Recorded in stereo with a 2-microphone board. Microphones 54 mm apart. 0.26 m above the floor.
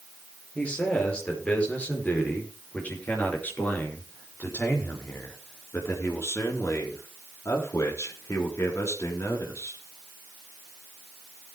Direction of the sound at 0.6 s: 20° left (ahead or behind).